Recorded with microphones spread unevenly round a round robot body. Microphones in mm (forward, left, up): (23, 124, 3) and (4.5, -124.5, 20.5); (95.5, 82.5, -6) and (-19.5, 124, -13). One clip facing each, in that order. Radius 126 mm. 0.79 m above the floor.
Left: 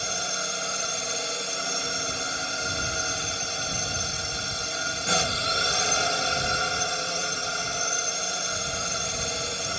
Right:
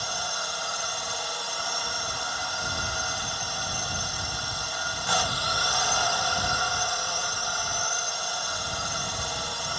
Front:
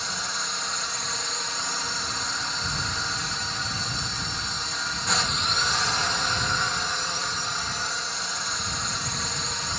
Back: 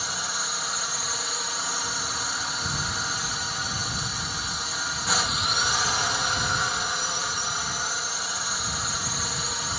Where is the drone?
80° left.